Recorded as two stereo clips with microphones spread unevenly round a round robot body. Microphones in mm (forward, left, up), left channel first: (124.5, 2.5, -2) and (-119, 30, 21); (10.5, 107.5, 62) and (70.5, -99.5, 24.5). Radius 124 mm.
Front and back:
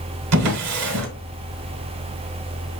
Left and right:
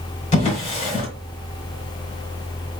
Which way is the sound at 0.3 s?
170° left.